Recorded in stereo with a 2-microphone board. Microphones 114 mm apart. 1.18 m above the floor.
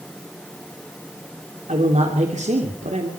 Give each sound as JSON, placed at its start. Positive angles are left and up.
{"t": 1.7, "sound": "a man speaking", "side_deg": -75, "distance_m": 2.5}